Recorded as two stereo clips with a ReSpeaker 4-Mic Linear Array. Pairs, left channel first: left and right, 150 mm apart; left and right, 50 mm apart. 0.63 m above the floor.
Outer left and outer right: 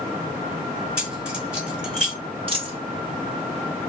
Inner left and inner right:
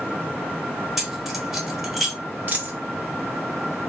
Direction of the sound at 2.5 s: 35° right (ahead or behind).